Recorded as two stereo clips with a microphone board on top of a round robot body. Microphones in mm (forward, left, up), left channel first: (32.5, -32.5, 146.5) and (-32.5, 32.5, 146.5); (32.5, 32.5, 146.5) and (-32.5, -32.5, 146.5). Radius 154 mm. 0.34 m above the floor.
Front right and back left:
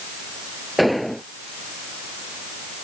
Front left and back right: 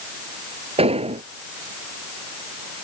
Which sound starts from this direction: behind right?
An explosion, at 0.8 s.